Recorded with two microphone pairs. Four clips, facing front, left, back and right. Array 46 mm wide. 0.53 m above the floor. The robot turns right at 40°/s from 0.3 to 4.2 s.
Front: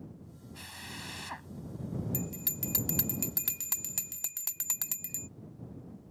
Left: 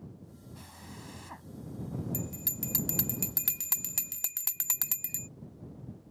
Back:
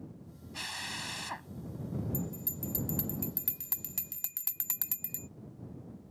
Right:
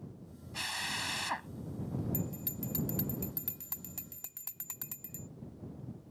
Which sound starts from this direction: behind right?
A drill, at 0.5 s.